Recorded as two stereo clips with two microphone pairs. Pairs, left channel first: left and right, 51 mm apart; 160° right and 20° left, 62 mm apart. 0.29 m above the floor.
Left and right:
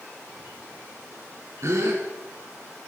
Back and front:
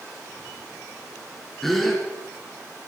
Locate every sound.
1.6 s a gasp: 75° right, 2.5 m